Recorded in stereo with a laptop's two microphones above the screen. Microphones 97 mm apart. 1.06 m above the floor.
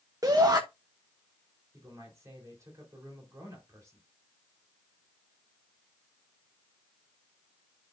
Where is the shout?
40° right (ahead or behind), 0.8 m.